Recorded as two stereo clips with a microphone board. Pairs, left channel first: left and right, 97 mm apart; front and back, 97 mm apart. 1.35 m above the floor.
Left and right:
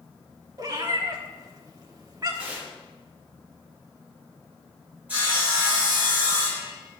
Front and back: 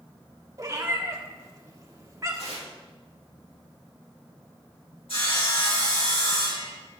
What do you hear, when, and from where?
0.6 s a cat meowing: 130° right, 1.4 m
2.4 s tearing paper: 15° right, 3 m
5.1 s sawing: 20° right, 4.5 m